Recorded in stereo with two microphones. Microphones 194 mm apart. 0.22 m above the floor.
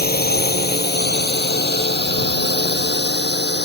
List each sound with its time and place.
0.0 s a drone: 55° left (ahead or behind); by 3.7 s 65° left (ahead or behind)